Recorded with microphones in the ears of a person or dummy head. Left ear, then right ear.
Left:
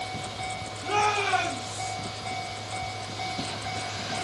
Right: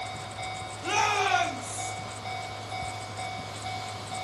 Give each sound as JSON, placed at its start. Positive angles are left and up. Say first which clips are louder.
{"t": 0.8, "sound": "a shout", "louder": "even", "side_deg": -70, "distance_m": 2.5}